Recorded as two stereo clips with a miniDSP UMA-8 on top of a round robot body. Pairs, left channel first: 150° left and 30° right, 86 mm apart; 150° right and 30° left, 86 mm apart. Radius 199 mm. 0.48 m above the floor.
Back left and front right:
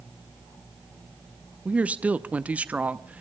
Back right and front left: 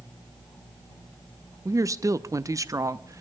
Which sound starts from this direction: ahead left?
A woman speaking, at 1.6 s.